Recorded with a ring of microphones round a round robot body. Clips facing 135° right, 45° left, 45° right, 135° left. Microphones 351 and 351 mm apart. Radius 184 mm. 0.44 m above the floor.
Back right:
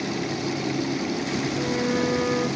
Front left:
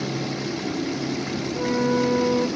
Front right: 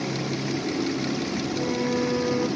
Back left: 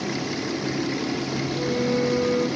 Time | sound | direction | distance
1.5 | a flute | 15° left | 0.8 m